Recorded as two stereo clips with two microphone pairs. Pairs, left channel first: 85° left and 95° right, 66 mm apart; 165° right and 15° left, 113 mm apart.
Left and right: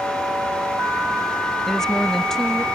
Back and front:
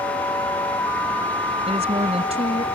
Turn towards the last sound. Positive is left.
turn(degrees=0)